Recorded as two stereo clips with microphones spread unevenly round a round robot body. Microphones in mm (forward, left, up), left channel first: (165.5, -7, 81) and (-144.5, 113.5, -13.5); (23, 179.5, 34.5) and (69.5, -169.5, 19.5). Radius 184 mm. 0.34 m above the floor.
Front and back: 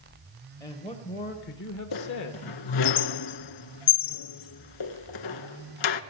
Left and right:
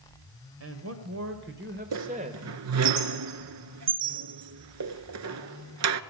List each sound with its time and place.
0.6 s a man speaking: 110° right, 1.3 m; by 2.9 s 5° right, 1.2 m
1.9 s a squeak: 35° right, 0.6 m